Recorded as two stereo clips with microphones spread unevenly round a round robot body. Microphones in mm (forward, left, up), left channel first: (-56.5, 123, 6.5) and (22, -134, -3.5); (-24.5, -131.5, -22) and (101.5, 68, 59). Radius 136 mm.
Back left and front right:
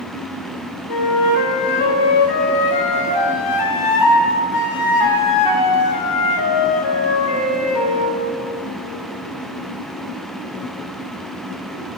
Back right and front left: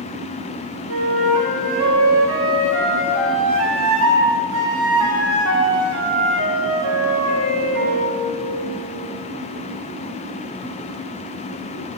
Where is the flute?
105° left, 1.1 m.